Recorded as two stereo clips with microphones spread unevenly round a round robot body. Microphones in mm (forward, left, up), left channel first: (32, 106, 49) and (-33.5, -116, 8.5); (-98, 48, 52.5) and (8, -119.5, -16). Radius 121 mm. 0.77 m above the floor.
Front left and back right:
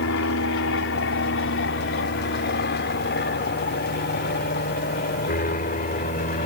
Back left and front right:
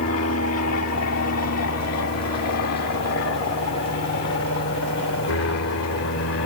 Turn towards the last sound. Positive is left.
turn(degrees=135)